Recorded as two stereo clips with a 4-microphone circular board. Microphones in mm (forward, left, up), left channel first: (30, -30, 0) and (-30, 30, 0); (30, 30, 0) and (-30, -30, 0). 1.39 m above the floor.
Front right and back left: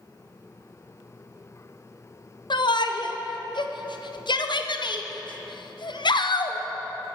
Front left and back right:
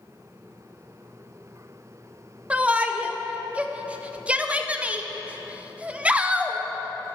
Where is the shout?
60° right, 0.7 m.